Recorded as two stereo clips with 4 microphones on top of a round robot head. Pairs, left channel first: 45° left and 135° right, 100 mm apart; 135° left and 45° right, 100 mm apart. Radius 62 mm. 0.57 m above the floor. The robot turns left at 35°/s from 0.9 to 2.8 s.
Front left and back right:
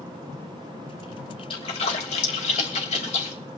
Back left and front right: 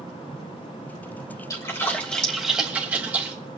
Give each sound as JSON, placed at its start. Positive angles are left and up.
{"t": 1.5, "sound": "a splash", "azimuth_deg": 80, "distance_m": 3.0}